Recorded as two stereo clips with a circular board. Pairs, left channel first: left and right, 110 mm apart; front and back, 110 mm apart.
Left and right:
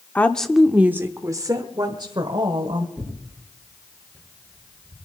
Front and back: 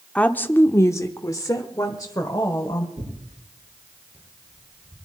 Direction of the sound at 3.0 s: 165° left.